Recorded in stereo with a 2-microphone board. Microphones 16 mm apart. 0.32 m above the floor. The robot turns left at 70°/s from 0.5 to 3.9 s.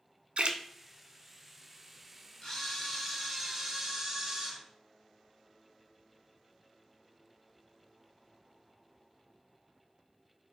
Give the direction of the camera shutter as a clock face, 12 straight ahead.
10 o'clock.